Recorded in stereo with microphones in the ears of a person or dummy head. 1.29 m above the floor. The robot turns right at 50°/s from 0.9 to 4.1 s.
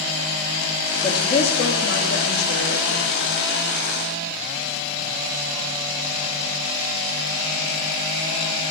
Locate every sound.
1.0 s a woman speaking: 20° left, 2.5 m; by 3.3 s 130° left, 2.5 m